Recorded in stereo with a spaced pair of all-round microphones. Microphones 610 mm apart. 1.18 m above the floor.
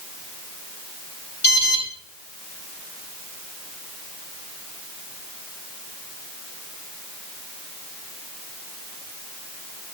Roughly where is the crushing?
No crushing in this recording.